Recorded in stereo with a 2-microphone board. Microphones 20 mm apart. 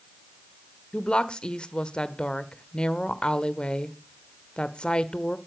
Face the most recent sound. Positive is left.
turn(degrees=55)  # may be behind; listen again after turning